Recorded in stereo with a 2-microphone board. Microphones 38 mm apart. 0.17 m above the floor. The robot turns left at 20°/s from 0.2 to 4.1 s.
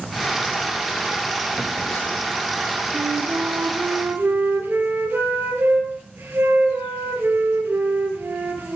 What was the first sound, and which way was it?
A phone buzzing, 55° left (ahead or behind).